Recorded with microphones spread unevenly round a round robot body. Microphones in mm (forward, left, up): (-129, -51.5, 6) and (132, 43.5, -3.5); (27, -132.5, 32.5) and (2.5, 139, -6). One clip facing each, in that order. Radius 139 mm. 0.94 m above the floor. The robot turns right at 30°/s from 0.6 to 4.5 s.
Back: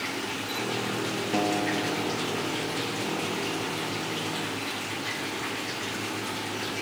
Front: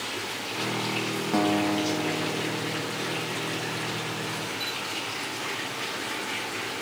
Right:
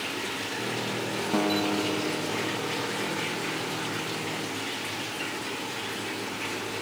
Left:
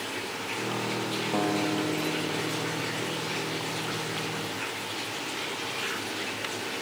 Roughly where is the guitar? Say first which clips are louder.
Front 4 dB, right 2 dB; ahead right.